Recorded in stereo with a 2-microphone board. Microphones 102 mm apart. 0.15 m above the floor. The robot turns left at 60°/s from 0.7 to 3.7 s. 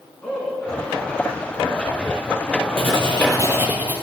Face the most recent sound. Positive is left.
turn(degrees=-165)